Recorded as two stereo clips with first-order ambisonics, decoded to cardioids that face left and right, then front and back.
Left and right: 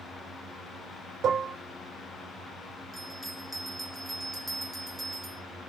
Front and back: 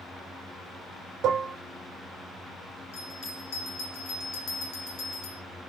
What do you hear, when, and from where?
1.2 s dishes clattering: 145° right, 0.7 m
2.9 s a bell: 10° right, 0.8 m